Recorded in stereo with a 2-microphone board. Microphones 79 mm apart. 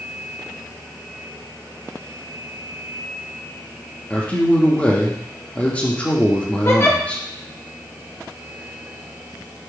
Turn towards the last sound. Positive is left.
turn(degrees=35)  # may be behind; listen again after turning